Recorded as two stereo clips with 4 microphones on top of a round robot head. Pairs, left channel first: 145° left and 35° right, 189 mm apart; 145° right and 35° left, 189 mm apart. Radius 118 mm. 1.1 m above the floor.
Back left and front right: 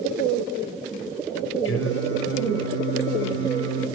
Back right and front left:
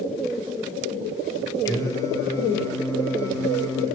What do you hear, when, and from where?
1.6 s singing: 140° left, 6 m